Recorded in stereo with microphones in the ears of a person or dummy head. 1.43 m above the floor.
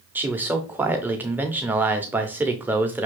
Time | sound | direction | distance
0.1 | a man speaking | 10° right (ahead or behind) | 0.6 m